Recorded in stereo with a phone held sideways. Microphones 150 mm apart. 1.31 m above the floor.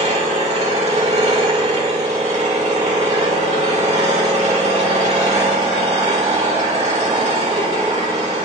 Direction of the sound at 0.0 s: 45° right (ahead or behind).